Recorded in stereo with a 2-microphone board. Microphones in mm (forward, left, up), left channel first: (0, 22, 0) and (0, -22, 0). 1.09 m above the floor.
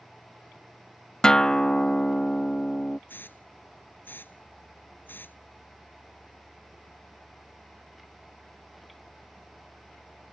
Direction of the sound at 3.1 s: 50° left (ahead or behind).